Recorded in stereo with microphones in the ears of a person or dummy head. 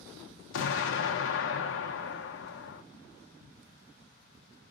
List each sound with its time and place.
0.5 s an explosion: 70° left (ahead or behind), 0.8 m